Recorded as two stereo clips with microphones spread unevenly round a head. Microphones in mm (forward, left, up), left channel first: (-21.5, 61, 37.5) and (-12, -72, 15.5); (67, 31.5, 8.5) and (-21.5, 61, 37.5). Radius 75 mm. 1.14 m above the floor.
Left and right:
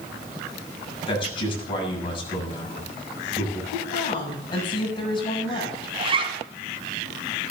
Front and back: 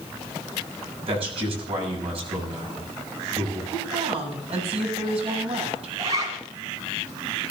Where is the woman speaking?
150° left, 8 m.